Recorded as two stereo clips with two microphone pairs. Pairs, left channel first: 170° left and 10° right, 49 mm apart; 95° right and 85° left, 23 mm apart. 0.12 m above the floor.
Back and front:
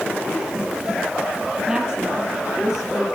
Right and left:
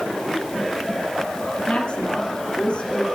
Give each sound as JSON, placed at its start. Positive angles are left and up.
{"t": 1.7, "sound": "a woman speaking", "azimuth_deg": -90, "distance_m": 3.5}